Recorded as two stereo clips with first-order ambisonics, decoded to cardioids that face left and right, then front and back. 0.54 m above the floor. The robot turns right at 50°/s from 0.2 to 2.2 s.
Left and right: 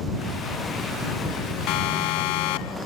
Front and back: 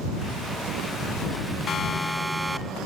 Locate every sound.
1.7 s a siren: 60° left; by 2.8 s 95° left